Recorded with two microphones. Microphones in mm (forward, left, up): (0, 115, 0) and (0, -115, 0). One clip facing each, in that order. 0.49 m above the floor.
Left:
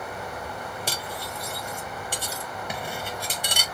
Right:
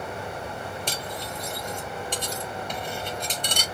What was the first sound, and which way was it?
Cutlery clinking, 10° left (ahead or behind).